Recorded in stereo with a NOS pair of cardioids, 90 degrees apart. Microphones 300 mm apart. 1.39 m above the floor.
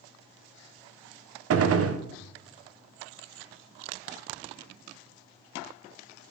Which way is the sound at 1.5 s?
50° right.